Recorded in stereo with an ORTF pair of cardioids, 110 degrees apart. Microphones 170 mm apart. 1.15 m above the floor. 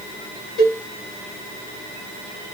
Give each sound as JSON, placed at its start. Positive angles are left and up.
{"t": 0.6, "sound": "a cowbell", "azimuth_deg": 65, "distance_m": 4.0}